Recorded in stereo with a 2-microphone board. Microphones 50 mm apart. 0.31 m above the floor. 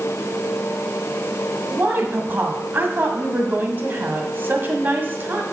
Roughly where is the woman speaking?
Right.